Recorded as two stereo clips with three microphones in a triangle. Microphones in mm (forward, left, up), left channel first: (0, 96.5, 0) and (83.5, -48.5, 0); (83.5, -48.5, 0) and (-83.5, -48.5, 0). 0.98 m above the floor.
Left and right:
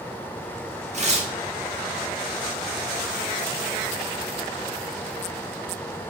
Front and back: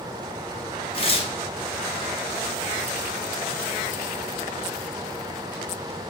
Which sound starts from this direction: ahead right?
Tearing paper, at 0.9 s.